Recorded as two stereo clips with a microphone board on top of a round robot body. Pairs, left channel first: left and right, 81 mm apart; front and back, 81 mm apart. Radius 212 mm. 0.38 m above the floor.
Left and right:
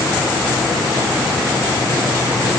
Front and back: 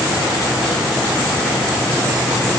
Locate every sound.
Only background noise.